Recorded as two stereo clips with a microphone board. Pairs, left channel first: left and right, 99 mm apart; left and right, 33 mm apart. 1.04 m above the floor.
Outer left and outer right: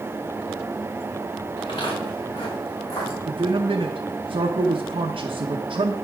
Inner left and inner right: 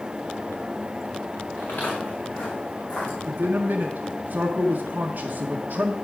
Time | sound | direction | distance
1.6 | footsteps | 50° left (ahead or behind) | 4.5 m
3.3 | a man speaking | 70° right (ahead or behind) | 1.0 m